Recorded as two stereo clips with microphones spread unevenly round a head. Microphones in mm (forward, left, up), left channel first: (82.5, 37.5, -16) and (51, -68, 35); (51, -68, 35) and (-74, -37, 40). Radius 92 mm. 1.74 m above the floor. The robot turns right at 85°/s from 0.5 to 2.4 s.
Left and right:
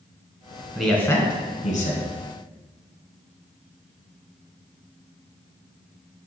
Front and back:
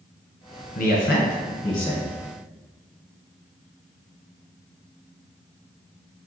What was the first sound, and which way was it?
A man speaking, 35° right.